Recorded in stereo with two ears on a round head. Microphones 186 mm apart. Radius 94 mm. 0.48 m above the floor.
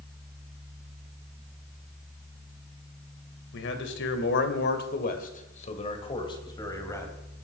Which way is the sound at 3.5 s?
65° left (ahead or behind).